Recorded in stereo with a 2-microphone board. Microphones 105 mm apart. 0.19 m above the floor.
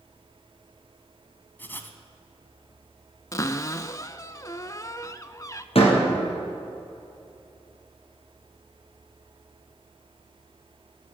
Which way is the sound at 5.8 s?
65° left (ahead or behind).